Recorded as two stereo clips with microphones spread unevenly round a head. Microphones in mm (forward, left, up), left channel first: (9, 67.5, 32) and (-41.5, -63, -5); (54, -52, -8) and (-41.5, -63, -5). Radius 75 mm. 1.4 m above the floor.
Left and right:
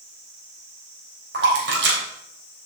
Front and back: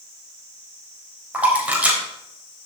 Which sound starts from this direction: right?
A splash, at 1.3 s.